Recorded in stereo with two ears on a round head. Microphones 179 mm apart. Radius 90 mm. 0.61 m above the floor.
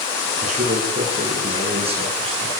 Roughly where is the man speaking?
Right.